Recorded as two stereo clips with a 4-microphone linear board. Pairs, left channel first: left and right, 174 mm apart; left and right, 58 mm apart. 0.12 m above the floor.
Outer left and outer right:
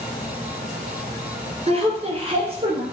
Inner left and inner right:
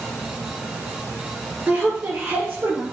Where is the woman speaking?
35° right (ahead or behind), 2.0 m.